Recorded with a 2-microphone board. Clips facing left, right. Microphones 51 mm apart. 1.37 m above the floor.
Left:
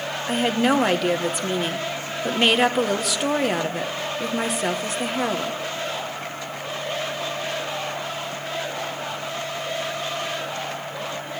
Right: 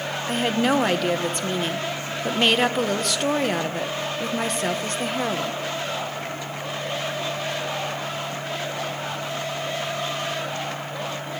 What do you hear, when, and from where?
0.3 s a woman speaking: 5° left (ahead or behind), 1.2 m